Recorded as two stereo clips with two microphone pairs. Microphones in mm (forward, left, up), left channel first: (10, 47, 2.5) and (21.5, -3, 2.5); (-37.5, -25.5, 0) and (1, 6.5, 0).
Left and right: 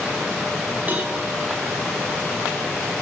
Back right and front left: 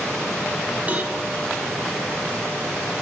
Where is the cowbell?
20° right, 4 m.